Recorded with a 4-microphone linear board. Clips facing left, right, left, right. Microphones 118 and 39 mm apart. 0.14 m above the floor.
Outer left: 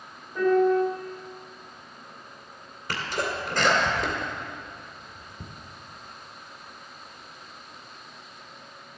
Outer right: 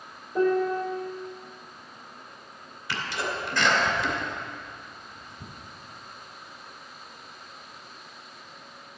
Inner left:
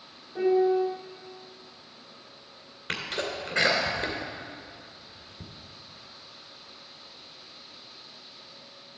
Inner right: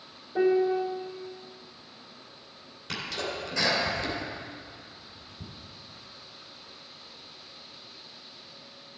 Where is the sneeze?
50° left (ahead or behind), 2 m.